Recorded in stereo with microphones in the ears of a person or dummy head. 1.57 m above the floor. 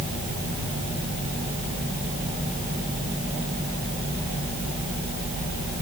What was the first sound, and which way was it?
Only background noise.